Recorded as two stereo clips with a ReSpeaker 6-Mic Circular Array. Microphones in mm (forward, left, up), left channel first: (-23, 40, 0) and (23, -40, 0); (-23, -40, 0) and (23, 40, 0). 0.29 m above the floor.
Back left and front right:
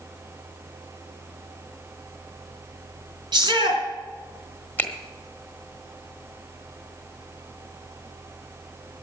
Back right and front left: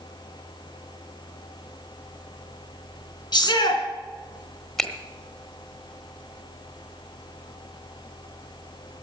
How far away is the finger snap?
About 1.3 m.